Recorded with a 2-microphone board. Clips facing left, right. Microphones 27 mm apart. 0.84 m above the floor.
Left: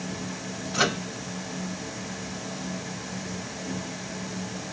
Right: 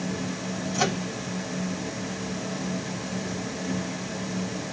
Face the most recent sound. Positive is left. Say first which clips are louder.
# left 2 dB
turn(degrees=70)  # may be behind; listen again after turning